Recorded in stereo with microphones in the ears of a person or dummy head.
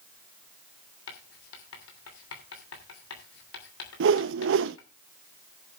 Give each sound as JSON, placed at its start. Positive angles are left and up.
{"t": 1.1, "sound": "writing", "side_deg": 85, "distance_m": 3.0}
{"t": 4.0, "sound": "a whoosh", "side_deg": -55, "distance_m": 0.6}